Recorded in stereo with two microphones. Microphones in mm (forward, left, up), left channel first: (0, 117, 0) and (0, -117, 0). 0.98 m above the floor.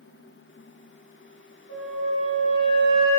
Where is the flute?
70° left (ahead or behind), 1.6 m.